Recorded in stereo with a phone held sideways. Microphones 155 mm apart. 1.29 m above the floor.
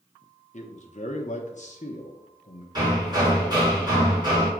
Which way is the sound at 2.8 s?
30° right (ahead or behind).